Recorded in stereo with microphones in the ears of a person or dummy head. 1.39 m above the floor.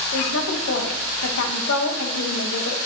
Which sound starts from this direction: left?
A woman speaking, at 0.1 s.